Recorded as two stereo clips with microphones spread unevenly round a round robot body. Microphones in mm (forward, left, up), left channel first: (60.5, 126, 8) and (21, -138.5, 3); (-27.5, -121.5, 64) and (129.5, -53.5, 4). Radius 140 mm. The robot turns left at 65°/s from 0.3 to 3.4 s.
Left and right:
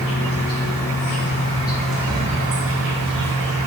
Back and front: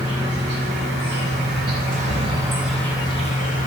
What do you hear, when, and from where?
0.0 s an insect: 95° left, 0.7 m; by 3.7 s 105° right, 0.7 m